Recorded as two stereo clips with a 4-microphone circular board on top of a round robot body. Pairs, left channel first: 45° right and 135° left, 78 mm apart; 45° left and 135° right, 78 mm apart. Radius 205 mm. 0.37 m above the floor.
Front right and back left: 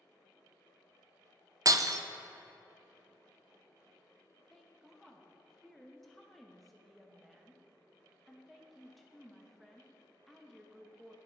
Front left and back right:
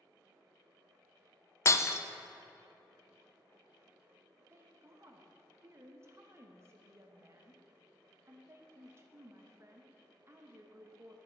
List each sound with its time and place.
1.6 s breaking glass: 95° left, 0.5 m
4.5 s a woman speaking: 135° right, 1.1 m